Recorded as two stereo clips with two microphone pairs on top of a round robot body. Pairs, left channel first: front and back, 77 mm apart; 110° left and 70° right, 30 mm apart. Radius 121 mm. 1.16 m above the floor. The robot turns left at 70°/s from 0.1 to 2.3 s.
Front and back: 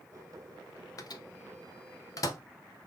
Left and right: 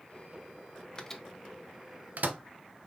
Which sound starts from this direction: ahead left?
A microwave, at 1.0 s.